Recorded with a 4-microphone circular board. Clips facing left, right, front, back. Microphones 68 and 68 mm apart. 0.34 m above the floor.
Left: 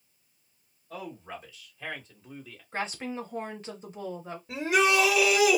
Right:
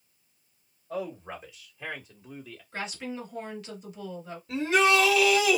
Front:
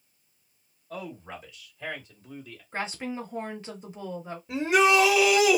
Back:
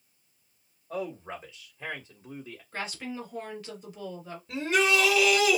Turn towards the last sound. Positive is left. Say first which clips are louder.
# right 1 dB, front 4 dB
turn(degrees=45)